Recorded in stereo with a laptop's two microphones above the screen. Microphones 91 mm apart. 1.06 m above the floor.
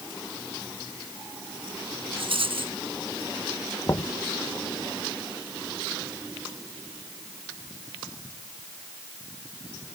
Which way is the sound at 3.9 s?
40° left (ahead or behind).